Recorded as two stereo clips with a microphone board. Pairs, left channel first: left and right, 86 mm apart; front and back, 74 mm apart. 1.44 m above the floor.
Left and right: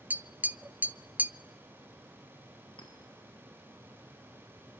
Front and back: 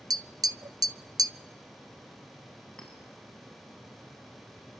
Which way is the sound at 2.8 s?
80° left.